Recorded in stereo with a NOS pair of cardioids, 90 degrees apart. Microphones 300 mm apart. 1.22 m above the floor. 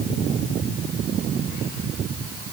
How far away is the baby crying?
No baby crying in this recording.